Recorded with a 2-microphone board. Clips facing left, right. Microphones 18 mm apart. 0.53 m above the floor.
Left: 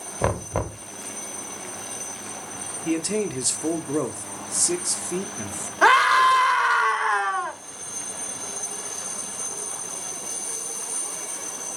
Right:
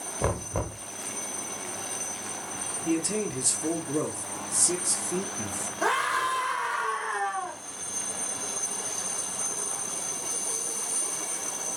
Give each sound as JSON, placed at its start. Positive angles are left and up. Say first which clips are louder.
{"t": 0.2, "sound": "knocking", "louder": "left 5 dB", "side_deg": 25, "distance_m": 1.0}
{"t": 2.9, "sound": "a man speaking", "louder": "left 3 dB", "side_deg": 25, "distance_m": 1.3}
{"t": 5.8, "sound": "a scream", "louder": "left 10 dB", "side_deg": 50, "distance_m": 1.4}